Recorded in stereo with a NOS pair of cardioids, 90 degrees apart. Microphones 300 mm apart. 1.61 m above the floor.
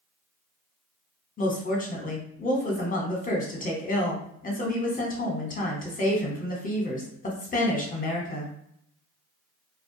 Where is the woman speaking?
25° left, 1.0 m.